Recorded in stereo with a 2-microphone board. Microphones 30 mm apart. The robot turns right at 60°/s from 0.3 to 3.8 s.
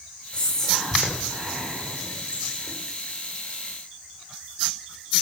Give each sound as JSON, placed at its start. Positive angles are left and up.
{"t": 0.3, "sound": "whispering", "side_deg": 30, "distance_m": 8.5}